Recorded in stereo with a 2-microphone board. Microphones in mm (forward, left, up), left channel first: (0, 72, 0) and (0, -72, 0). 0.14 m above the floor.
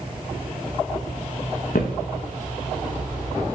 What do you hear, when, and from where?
1.7 s footsteps: 85° left, 0.6 m